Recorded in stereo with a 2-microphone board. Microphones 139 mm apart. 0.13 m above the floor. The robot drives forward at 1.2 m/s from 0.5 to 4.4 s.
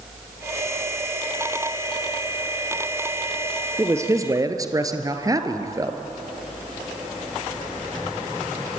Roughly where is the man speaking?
Centre.